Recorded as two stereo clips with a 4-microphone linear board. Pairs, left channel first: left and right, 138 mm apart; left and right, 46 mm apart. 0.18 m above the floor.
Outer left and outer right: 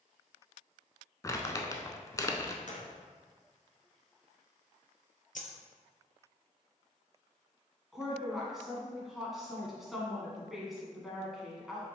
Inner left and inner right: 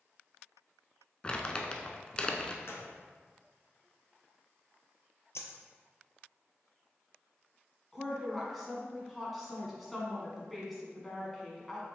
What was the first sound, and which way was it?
Crumpling, 25° left (ahead or behind).